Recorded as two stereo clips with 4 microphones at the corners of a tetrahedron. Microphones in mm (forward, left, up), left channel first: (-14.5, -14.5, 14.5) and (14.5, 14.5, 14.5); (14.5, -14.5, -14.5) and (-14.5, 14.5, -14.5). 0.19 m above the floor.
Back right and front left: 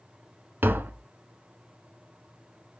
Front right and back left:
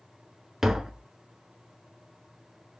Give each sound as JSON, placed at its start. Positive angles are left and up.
{"t": 0.6, "sound": "tapping", "azimuth_deg": 60, "distance_m": 0.5}